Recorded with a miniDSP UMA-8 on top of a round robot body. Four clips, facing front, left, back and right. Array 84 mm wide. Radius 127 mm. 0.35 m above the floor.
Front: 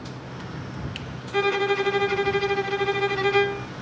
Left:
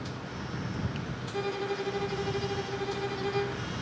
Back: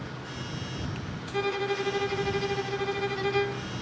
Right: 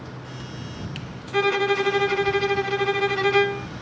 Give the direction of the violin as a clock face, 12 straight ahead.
2 o'clock.